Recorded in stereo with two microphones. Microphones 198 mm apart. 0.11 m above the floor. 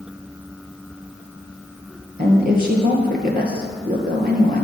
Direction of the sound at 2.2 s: 55° right (ahead or behind).